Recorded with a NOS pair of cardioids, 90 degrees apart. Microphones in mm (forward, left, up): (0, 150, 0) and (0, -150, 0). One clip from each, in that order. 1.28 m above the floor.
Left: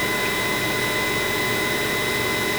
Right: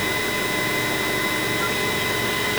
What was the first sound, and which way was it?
Only background noise.